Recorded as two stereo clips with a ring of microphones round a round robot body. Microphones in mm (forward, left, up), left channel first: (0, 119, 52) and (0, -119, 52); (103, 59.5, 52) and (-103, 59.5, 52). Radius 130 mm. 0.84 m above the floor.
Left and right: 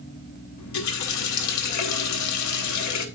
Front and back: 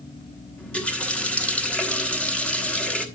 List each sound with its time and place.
0.6 s a running tap: 85° left, 1.2 m